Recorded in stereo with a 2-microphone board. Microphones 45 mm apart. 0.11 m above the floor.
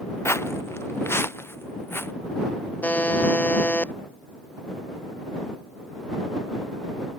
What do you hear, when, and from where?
0.2 s footsteps: 85° left; by 2.1 s 60° left (ahead or behind)
2.8 s a buzzer: 40° left (ahead or behind)